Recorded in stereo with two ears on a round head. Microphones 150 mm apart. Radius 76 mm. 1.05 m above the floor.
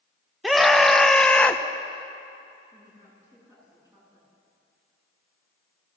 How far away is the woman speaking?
About 9.5 m.